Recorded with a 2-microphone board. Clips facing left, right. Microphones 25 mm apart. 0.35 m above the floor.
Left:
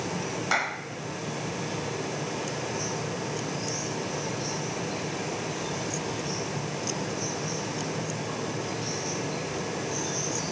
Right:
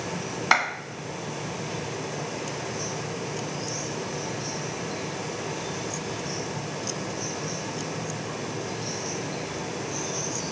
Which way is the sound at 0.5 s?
40° right (ahead or behind).